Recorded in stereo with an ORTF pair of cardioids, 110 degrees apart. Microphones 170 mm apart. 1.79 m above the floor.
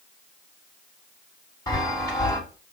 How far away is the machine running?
No machine running in this recording.